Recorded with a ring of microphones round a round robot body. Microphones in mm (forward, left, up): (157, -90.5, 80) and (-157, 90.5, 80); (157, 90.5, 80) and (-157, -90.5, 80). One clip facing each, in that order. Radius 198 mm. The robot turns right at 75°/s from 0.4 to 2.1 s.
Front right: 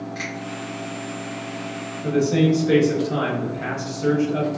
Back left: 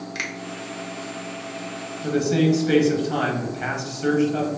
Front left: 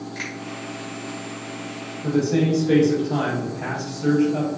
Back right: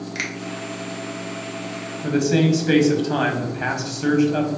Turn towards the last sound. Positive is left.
turn(degrees=-140)